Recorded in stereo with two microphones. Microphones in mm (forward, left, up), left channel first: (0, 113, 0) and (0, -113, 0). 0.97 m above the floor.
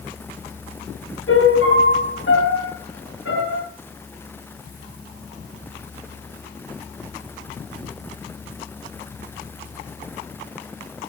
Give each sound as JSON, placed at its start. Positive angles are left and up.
{"t": 1.3, "sound": "a piano", "side_deg": 70, "distance_m": 9.5}